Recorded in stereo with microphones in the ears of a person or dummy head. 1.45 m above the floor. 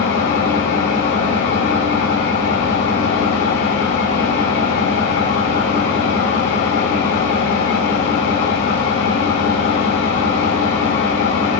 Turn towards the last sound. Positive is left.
turn(degrees=60)  # may be behind; listen again after turning